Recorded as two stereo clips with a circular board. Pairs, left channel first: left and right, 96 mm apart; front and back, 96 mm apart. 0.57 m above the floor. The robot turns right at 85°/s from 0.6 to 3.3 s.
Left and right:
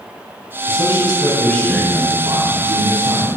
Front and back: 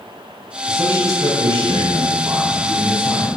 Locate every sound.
0.7 s a man speaking: 90° left, 3.5 m; by 3.3 s 45° right, 3.5 m